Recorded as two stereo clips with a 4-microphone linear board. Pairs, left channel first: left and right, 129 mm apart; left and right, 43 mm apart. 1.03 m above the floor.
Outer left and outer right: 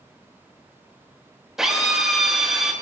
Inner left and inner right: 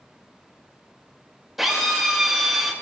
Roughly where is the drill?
Centre.